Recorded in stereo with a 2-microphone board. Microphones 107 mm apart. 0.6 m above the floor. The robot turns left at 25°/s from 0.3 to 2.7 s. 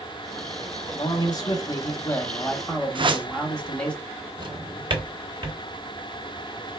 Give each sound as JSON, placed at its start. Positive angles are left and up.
{"t": 0.9, "sound": "a man speaking", "azimuth_deg": 55, "distance_m": 1.0}
{"t": 3.0, "sound": "a whoosh", "side_deg": -50, "distance_m": 0.5}
{"t": 4.4, "sound": "a drawer", "side_deg": -45, "distance_m": 1.0}